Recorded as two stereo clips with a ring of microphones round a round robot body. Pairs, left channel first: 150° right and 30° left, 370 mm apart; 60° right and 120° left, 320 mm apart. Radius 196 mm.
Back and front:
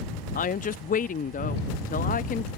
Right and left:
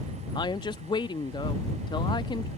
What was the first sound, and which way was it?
A woman speaking, 115° right.